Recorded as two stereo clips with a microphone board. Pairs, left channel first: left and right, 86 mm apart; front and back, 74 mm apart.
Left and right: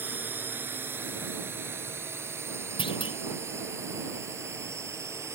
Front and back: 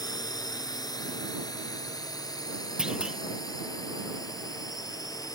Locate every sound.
0.0 s a drone: 25° right; by 5.4 s 35° right
2.8 s a clunk: 100° left